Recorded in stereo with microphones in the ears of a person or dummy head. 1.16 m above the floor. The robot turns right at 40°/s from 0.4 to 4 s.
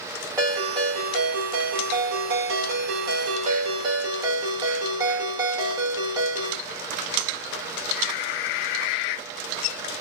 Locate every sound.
0.4 s a ringtone: 165° right, 1.4 m; by 6.6 s 20° right, 1.4 m